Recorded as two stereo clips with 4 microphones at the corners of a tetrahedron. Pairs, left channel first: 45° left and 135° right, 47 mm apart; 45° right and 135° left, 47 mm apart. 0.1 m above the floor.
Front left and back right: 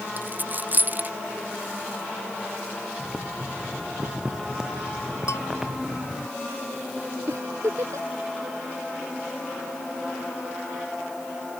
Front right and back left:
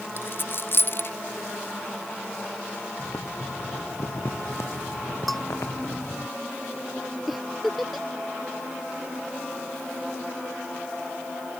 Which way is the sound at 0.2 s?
85° right.